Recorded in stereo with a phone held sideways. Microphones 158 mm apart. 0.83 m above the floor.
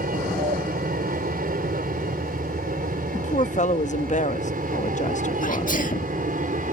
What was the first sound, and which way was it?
An aircraft, 65° right (ahead or behind).